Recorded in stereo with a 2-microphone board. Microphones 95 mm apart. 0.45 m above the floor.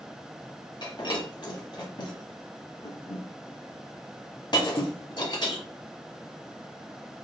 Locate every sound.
0.8 s breaking glass: 55° left (ahead or behind), 1.4 m